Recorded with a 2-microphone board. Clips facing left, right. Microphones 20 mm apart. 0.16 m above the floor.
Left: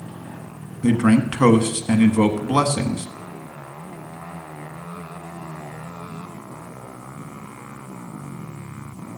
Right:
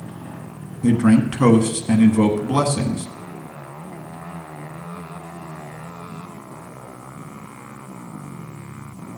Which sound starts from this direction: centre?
A man speaking, at 0.8 s.